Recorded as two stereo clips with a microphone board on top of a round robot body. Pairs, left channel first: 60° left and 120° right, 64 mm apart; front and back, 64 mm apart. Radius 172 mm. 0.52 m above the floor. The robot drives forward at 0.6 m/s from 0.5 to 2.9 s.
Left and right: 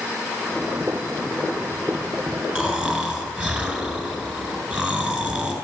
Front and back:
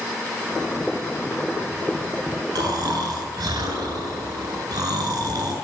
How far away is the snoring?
About 2.5 m.